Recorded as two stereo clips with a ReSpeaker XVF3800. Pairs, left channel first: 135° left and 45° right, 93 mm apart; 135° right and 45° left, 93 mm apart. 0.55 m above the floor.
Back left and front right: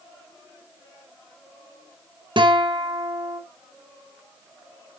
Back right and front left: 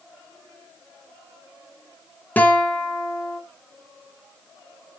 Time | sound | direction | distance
2.4 | a guitar | 65° right | 2 m